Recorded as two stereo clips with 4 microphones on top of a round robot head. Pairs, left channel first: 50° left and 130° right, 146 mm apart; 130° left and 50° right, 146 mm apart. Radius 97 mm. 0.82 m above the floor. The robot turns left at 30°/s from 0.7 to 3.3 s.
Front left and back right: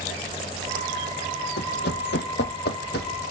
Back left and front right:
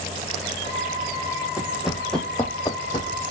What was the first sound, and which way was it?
Running footsteps, 30° left.